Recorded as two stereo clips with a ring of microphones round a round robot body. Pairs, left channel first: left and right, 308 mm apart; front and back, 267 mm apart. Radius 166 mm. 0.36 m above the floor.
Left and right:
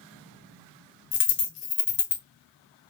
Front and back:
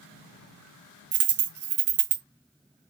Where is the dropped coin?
145° left, 0.6 m.